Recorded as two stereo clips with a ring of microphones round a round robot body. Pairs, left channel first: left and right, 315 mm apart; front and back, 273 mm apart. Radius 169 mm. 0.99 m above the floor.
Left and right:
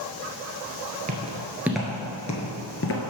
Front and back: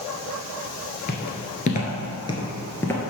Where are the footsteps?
40° right, 1.1 m; by 3.0 s 80° left, 1.1 m.